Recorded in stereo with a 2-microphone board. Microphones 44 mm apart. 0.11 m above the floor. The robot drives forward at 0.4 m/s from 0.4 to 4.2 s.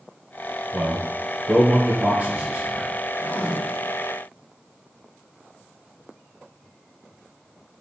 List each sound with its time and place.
0.7 s a man speaking: 25° right (ahead or behind), 1.5 m; by 2.9 s 20° right (ahead or behind), 1.7 m
3.2 s writing: 30° right (ahead or behind), 0.8 m